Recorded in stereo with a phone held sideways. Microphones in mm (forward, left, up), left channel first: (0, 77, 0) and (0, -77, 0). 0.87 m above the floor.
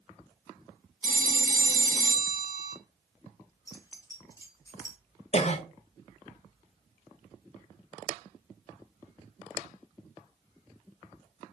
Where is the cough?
45° left (ahead or behind), 0.7 m.